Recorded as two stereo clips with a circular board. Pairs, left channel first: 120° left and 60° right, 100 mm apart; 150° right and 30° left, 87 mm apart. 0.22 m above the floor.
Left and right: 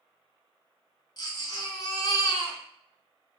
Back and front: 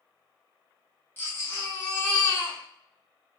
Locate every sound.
1.2 s a baby crying: 155° left, 0.9 m